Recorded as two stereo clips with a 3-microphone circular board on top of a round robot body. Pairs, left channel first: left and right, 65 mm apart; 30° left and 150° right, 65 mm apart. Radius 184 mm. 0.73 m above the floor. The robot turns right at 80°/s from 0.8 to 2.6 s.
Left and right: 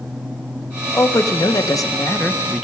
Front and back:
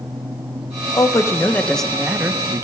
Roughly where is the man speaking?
Ahead left.